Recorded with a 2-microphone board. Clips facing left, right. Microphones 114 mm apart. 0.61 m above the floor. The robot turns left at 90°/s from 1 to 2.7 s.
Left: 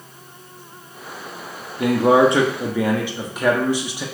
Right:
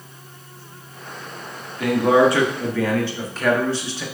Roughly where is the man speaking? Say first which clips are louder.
Left 1 dB; left.